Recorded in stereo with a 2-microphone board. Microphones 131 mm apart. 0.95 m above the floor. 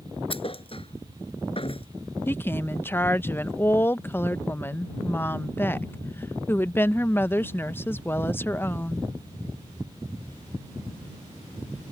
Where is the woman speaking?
15° left (ahead or behind).